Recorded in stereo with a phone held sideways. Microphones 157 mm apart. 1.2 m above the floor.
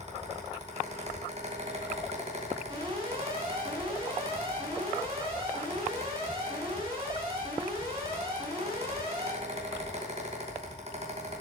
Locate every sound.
0.0 s a fan: 45° right (ahead or behind), 2.5 m
2.7 s an alarm: 35° right (ahead or behind), 6 m